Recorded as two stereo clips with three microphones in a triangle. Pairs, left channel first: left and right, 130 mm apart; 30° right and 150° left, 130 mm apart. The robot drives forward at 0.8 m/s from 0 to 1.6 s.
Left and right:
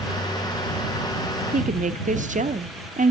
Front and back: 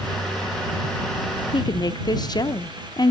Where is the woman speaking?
85° right, 0.5 m; by 3.1 s 90° right, 0.5 m.